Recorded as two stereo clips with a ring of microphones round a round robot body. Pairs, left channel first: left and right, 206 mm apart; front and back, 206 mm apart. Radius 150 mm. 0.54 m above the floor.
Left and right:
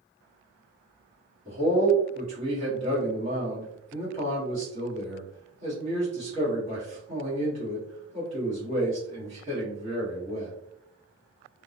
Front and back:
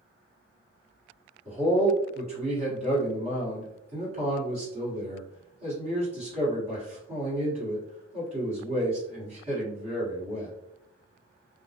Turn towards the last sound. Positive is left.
turn(degrees=-135)